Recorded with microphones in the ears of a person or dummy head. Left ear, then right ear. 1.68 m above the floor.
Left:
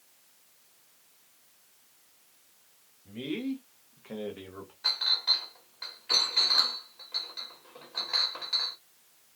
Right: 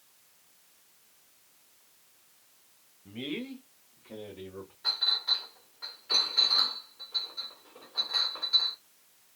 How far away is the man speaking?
About 1.0 m.